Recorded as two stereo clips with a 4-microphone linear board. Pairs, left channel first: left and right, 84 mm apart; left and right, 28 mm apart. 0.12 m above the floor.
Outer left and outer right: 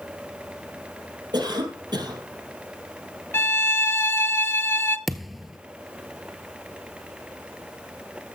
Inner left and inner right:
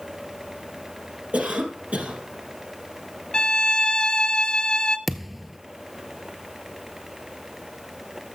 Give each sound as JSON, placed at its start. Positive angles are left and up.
{"t": 1.3, "sound": "a cough", "side_deg": -60, "distance_m": 3.5}
{"t": 3.3, "sound": "a violin", "side_deg": 30, "distance_m": 0.7}
{"t": 5.1, "sound": "a thud", "side_deg": 0, "distance_m": 0.5}